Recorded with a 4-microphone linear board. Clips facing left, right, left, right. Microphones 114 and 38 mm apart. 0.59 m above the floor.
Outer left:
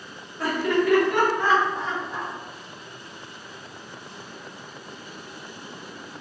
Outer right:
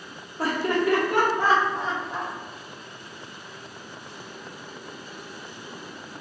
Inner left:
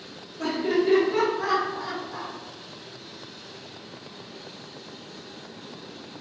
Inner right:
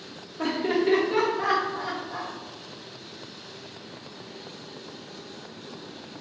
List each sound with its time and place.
0.4 s laughter: 30° right (ahead or behind), 1.1 m